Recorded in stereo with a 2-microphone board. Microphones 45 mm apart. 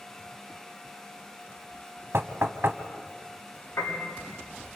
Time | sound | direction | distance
2.1 | knocking | 65° right (ahead or behind) | 1.3 m
3.8 | a piano | 90° left | 9.5 m